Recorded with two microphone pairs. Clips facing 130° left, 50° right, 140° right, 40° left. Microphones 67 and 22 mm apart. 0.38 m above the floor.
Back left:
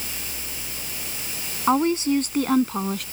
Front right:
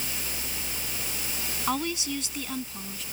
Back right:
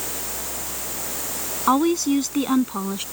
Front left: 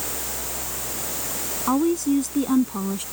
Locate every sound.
1.7 s a woman speaking: 170° right; by 3.0 s 155° left